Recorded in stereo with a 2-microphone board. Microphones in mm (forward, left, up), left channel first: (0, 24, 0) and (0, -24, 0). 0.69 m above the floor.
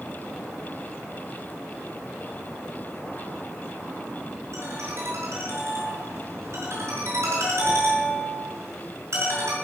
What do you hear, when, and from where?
4.5 s a ringtone: 70° right (ahead or behind), 5.5 m